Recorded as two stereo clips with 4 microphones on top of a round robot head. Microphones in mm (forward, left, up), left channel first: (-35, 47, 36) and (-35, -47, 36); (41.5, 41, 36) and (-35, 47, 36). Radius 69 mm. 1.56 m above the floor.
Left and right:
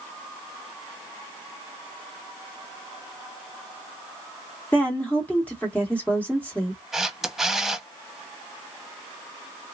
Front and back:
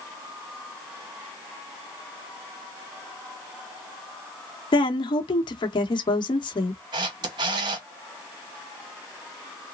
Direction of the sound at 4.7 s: 10° left.